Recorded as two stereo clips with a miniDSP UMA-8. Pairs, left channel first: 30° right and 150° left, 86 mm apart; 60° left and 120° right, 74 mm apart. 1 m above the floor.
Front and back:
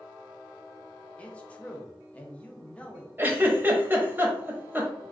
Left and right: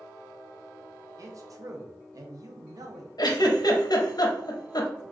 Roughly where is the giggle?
Left.